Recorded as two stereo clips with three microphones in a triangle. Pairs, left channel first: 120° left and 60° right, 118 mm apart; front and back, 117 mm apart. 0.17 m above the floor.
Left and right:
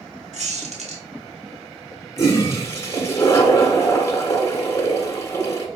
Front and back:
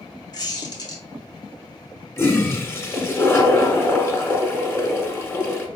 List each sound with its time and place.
0.3 s a squeak: 50° right, 1.5 m
2.2 s a toilet flushing: 65° left, 1.1 m